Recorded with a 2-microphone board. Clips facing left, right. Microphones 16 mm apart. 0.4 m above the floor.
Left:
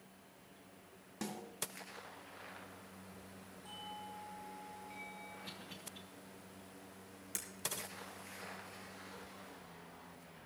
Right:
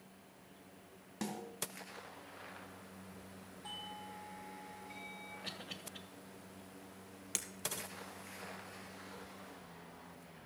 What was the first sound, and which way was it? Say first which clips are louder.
A snare drum: right 2 dB; 10° right (ahead or behind).